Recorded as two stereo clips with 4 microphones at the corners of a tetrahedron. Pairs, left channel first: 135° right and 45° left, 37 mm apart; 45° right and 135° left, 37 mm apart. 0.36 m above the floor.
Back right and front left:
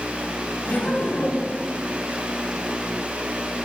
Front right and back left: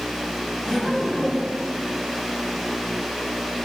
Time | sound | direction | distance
0.6 | laughter | 120° right | 2.5 m